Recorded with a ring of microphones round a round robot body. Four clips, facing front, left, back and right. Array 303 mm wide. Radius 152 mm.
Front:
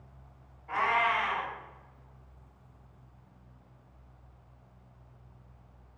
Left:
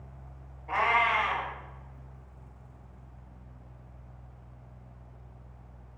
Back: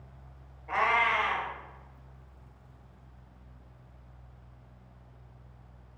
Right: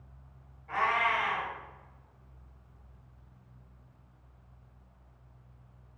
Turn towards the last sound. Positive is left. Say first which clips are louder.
# left 3 dB, back 1 dB
turn(degrees=130)